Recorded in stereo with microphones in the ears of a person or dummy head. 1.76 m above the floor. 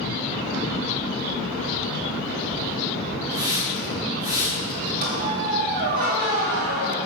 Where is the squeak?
60° right (ahead or behind), 2.5 m.